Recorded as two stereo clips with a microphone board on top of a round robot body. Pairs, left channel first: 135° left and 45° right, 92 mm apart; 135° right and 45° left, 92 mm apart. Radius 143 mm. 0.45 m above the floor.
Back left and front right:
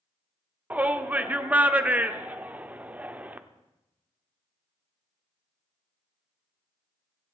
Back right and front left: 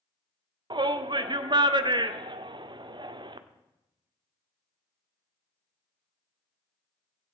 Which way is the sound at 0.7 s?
25° left.